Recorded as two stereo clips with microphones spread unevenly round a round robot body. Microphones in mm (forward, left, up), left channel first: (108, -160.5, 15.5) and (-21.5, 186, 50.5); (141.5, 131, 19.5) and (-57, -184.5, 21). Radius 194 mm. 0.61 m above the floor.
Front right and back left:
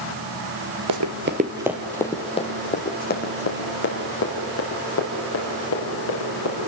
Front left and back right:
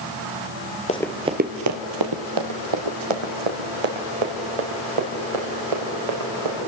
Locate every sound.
0.9 s running footsteps: 130° left, 0.9 m; by 6.6 s 130° right, 6 m